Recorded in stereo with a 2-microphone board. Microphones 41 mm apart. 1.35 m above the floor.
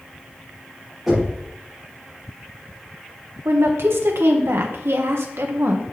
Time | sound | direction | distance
1.1 | knocking | centre (ahead or behind) | 4 m
3.5 | a woman speaking | 70° right (ahead or behind) | 1.3 m